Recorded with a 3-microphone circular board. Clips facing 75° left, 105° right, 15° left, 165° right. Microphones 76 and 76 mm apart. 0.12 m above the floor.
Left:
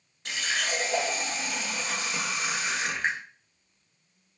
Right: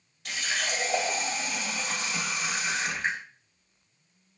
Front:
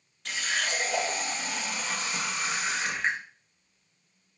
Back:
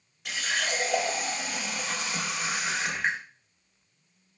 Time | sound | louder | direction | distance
0.2 | a running tap | left 1 dB, back 1 dB | 115° left | 1.2 m